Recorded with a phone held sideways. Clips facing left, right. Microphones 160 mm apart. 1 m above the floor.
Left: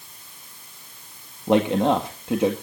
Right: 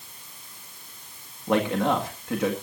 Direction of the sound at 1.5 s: 25° left (ahead or behind).